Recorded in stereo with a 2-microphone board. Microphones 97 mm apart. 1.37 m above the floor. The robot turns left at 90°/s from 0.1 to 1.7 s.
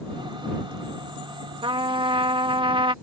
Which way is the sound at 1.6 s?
65° right (ahead or behind).